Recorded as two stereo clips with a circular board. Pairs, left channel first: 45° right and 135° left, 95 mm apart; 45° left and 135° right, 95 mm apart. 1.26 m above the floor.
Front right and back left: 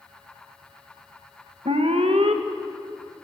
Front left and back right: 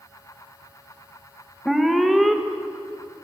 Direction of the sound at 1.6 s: 135° left.